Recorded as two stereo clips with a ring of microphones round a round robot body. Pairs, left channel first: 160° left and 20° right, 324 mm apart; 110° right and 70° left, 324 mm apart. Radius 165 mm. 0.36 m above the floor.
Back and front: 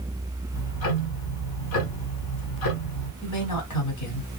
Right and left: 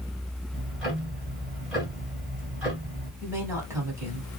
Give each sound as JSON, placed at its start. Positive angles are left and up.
{"t": 0.5, "sound": "ticking", "azimuth_deg": 155, "distance_m": 1.9}
{"t": 3.2, "sound": "a woman speaking", "azimuth_deg": 145, "distance_m": 1.8}